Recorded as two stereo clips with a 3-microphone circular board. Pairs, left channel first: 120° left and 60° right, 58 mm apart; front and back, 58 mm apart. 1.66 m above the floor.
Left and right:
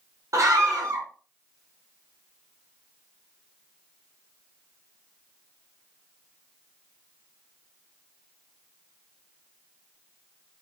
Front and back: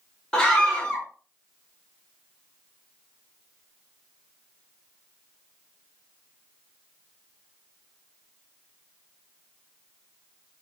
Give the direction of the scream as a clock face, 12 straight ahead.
2 o'clock.